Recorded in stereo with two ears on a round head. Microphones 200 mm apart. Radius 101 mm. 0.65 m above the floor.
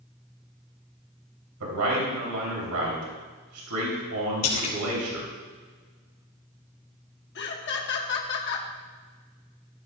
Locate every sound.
1.6 s a man speaking: 75° right (ahead or behind), 3.5 m
4.4 s a splash: 75° left (ahead or behind), 2.5 m
7.3 s laughter: 50° left (ahead or behind), 1.1 m